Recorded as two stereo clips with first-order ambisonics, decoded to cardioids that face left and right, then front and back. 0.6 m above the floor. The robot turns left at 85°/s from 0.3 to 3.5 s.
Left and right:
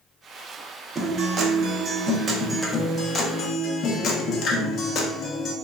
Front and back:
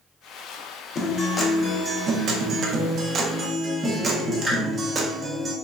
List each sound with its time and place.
0.9 s a guitar: 30° right, 0.6 m; by 5.5 s 115° left, 0.6 m